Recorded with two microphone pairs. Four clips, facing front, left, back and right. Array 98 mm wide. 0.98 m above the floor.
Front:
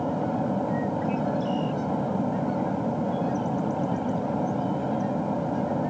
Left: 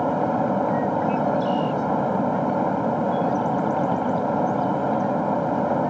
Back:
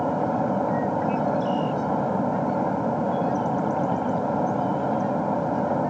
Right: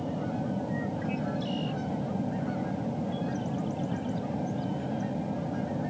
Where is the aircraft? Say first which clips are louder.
Left 11 dB, back 3 dB; 115° left.